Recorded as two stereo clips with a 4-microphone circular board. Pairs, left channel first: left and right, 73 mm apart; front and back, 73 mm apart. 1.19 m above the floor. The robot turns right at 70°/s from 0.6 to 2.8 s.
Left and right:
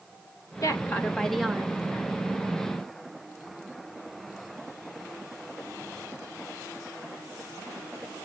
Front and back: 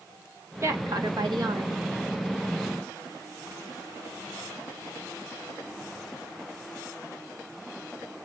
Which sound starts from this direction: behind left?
A woman speaking, at 0.6 s.